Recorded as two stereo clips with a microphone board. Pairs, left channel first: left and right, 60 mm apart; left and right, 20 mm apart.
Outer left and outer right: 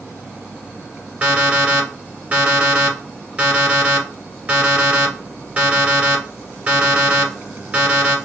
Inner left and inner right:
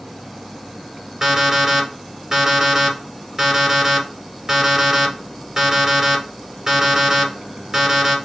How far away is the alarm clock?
About 1.6 m.